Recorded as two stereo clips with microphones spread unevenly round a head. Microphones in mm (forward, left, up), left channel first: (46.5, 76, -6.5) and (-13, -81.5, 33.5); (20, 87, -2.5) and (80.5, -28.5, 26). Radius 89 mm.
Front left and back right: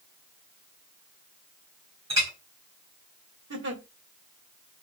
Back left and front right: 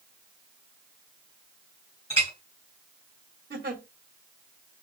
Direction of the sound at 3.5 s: 100° right.